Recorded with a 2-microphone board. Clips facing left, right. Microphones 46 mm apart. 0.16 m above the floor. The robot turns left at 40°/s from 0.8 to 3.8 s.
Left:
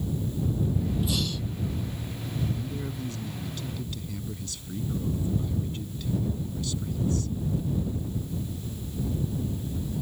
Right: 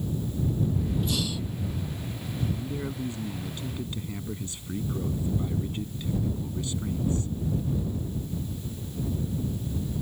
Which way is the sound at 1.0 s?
5° left (ahead or behind).